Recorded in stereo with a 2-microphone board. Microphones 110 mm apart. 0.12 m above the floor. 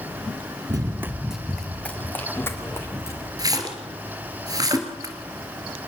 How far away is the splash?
About 2.5 m.